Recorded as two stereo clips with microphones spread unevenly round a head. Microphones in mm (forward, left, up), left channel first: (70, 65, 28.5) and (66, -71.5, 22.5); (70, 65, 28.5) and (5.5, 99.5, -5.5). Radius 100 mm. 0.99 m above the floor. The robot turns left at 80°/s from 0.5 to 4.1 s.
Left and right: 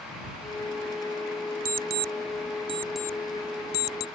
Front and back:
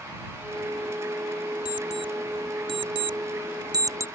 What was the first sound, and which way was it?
An alarm clock, 75° right.